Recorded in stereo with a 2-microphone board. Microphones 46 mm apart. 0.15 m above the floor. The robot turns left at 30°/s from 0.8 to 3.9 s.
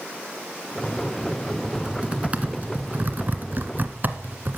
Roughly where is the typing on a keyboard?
Centre.